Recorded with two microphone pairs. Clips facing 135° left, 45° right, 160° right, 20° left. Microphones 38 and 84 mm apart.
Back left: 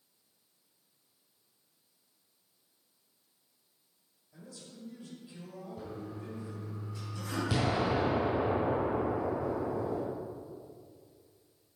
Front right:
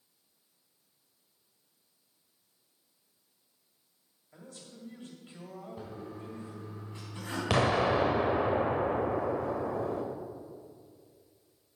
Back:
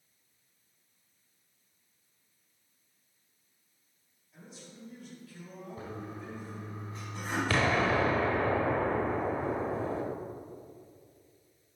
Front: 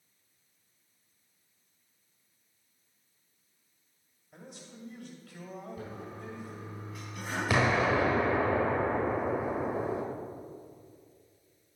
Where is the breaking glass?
No breaking glass in this recording.